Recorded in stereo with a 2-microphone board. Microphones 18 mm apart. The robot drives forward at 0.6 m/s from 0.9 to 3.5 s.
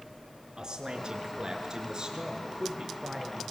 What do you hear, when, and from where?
0.6 s a man speaking: 40° right (ahead or behind), 5.5 m; by 3.4 s 35° right (ahead or behind), 6.5 m